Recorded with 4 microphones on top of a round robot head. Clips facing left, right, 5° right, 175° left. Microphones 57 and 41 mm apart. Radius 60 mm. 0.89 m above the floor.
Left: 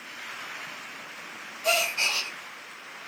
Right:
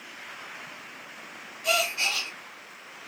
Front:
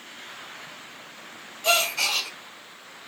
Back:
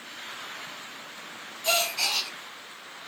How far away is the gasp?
About 1.8 m.